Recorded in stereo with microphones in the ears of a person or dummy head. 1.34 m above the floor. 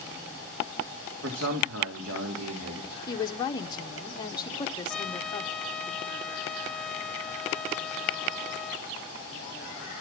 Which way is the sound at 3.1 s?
20° left (ahead or behind).